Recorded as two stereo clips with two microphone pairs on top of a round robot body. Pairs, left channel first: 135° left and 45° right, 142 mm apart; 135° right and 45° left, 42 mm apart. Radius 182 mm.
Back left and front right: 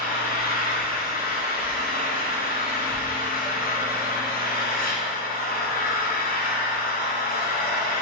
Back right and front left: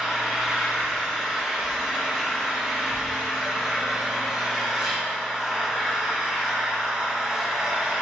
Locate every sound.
0.0 s an engine running: 125° left, 1.4 m